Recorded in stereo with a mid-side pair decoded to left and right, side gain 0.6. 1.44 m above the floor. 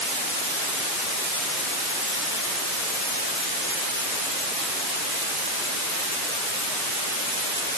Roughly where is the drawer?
No drawer in this recording.